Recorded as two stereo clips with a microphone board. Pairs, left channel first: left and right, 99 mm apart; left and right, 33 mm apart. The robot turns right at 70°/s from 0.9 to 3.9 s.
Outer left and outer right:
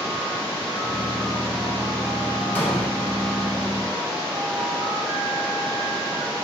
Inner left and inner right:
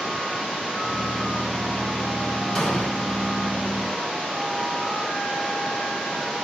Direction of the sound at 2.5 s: 20° left (ahead or behind).